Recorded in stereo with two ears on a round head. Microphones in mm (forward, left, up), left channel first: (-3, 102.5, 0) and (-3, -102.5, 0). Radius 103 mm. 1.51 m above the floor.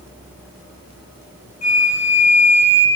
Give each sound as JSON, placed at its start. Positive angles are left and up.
{"t": 1.6, "sound": "a flute", "side_deg": 30, "distance_m": 3.0}